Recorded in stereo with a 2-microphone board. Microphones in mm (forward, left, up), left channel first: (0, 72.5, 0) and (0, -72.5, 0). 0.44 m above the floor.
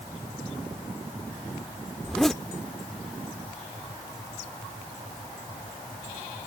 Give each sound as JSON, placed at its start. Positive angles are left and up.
{"t": 2.0, "sound": "a zipper", "side_deg": 5}